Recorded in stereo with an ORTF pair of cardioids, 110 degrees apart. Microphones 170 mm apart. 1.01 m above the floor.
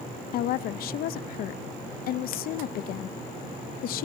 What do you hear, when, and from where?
0.3 s a woman speaking: 65° left, 0.6 m